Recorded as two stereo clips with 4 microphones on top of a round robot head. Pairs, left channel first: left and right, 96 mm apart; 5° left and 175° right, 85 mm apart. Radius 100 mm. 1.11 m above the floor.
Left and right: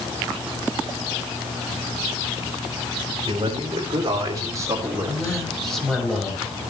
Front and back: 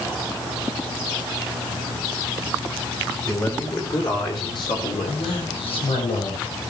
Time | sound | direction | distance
3.3 | a man speaking | 50° right | 4 m
5.1 | a man speaking | 5° left | 6.5 m